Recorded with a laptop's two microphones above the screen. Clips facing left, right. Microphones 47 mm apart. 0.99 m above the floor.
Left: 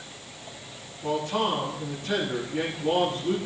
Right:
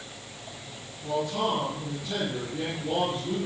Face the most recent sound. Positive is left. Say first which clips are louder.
# left 1 dB
turn(degrees=60)  # may be behind; listen again after turning